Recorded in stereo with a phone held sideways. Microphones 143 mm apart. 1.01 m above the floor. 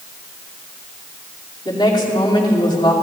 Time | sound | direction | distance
1.6 | a woman speaking | 35° left (ahead or behind) | 2.5 m